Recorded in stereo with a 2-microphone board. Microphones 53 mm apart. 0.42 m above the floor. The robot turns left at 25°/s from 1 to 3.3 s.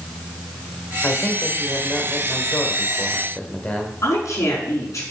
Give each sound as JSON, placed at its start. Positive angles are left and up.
{"t": 1.0, "sound": "a man speaking", "azimuth_deg": 95, "distance_m": 1.6}
{"t": 4.0, "sound": "a woman speaking", "side_deg": 65, "distance_m": 5.0}